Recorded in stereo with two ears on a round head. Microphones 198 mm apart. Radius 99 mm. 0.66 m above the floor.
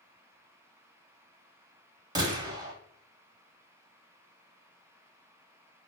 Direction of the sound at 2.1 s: 20° right (ahead or behind).